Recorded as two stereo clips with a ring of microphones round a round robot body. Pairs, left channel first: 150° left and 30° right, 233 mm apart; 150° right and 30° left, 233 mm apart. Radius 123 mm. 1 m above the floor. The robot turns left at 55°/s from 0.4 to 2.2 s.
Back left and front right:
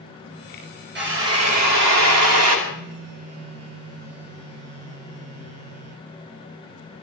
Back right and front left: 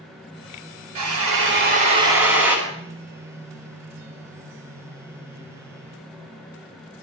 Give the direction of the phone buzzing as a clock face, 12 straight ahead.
2 o'clock.